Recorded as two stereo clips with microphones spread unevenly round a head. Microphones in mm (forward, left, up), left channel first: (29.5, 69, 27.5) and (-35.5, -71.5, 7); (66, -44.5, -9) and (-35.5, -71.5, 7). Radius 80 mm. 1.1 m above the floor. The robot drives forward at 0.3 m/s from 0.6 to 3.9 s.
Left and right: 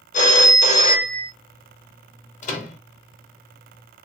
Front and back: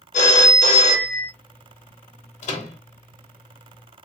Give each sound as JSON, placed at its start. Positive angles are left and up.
{"t": 0.1, "sound": "a phone ringing", "azimuth_deg": 20, "distance_m": 0.9}
{"t": 2.4, "sound": "a microwave", "azimuth_deg": 20, "distance_m": 0.9}